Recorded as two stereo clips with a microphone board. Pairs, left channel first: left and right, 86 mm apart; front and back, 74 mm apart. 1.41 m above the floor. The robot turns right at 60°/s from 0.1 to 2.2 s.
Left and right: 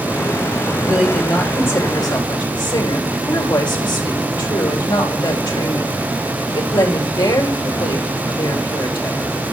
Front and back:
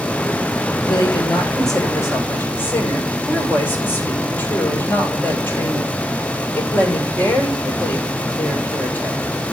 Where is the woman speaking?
20° right, 5.5 m; by 9.3 s 60° left, 5.5 m.